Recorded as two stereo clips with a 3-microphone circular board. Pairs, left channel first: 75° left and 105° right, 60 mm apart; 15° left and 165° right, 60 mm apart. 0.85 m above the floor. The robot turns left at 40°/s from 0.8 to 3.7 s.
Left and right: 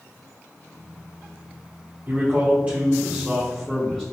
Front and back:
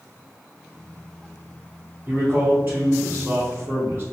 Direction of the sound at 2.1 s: 130° right.